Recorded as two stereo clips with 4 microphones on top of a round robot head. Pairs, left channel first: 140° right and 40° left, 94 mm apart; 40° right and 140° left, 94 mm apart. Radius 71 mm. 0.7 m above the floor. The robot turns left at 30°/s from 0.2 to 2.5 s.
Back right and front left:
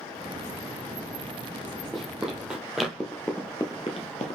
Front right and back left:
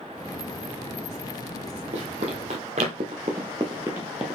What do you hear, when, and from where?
1.9 s running footsteps: 130° left, 1.4 m; by 4.4 s 130° right, 0.9 m